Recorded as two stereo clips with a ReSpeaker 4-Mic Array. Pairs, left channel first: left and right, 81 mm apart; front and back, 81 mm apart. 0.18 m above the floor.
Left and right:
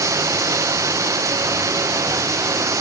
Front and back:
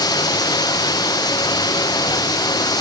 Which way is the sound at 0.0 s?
40° right.